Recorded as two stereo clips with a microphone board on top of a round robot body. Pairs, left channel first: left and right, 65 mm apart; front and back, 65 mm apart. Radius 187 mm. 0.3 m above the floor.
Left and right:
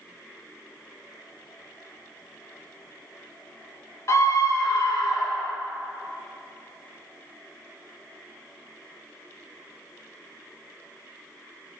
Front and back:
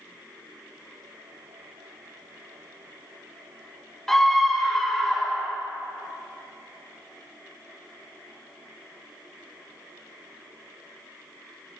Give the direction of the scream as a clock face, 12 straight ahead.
9 o'clock.